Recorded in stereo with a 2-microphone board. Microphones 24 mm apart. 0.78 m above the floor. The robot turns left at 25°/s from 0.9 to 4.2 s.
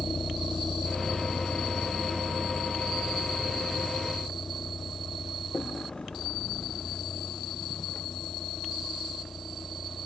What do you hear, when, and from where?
0.0 s a vehicle: 35° left (ahead or behind); by 10.1 s 50° left (ahead or behind)